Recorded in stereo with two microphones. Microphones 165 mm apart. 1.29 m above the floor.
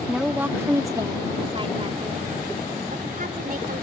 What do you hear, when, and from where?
0.1 s a woman speaking: 5° right (ahead or behind); by 3.8 s 60° right (ahead or behind)